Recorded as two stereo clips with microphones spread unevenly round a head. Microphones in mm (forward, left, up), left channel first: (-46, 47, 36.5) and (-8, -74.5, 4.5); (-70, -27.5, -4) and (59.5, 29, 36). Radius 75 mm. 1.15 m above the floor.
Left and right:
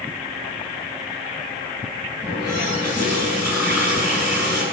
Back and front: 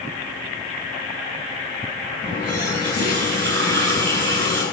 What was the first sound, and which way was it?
A running tap, 15° left.